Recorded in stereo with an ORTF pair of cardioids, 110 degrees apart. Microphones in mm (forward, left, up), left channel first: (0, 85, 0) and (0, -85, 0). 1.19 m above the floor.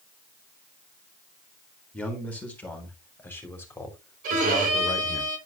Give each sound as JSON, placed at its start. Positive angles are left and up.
{"t": 1.9, "sound": "a man speaking", "azimuth_deg": 5, "distance_m": 4.0}
{"t": 4.2, "sound": "a violin", "azimuth_deg": -55, "distance_m": 3.0}